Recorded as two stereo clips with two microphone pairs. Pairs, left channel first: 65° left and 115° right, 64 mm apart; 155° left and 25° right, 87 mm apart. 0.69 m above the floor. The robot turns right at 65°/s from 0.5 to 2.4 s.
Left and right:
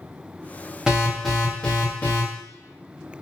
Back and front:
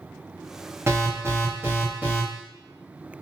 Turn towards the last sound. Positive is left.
turn(degrees=55)